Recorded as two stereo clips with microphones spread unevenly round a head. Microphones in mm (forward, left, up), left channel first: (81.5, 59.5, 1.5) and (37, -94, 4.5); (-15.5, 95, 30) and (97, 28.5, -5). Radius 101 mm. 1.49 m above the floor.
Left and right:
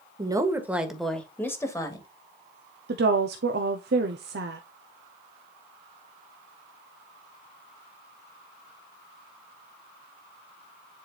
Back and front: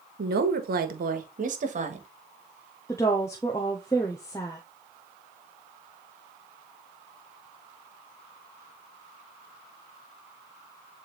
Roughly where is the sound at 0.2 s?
Ahead right.